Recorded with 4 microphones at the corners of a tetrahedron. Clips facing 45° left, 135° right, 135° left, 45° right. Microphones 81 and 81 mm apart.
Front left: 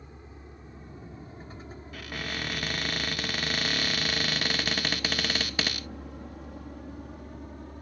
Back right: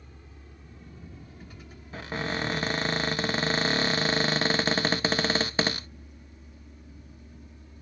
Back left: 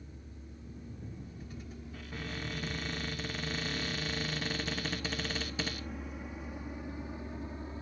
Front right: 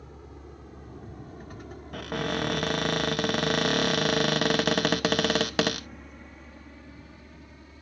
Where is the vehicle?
20° right; by 7.8 s 75° left.